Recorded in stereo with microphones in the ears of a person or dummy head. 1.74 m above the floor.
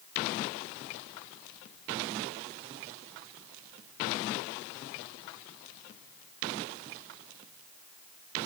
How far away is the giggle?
No giggle in this recording.